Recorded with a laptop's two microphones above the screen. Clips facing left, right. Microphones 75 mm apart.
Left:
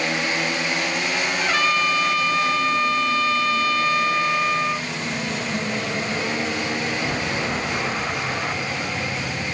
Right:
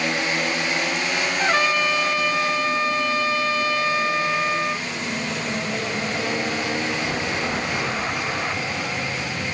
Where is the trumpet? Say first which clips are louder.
Right 1 dB; 30° right (ahead or behind), 0.7 m.